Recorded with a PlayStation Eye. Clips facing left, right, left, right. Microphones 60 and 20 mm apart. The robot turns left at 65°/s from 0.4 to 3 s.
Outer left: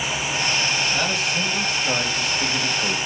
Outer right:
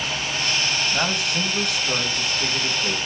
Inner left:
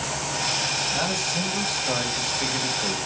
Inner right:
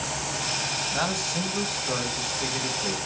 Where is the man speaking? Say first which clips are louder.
Outer left 1 dB, inner left 2 dB; 165° right, 2.5 m; by 3.0 s 60° left, 2.5 m.